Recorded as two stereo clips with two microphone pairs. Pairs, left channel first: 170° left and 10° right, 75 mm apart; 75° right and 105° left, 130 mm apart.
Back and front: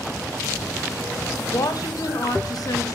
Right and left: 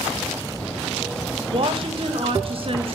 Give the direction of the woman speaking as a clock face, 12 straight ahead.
7 o'clock.